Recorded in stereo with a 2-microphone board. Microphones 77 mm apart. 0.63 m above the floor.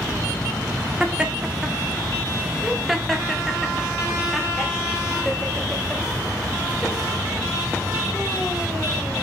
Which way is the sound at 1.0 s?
15° right (ahead or behind).